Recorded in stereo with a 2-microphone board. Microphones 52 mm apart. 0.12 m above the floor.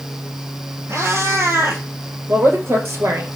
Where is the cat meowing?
60° right (ahead or behind), 2.0 m.